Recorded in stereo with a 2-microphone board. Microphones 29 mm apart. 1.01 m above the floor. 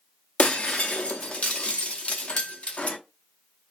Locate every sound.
0.4 s breaking glass: 45° left (ahead or behind), 0.6 m